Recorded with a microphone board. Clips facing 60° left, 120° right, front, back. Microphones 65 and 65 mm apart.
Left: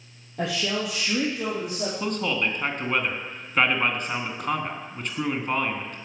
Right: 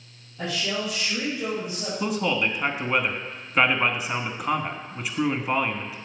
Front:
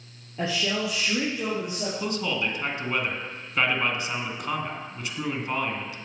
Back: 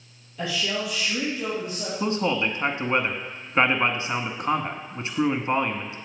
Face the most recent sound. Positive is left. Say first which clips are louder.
# right 4 dB, back 6 dB
turn(degrees=160)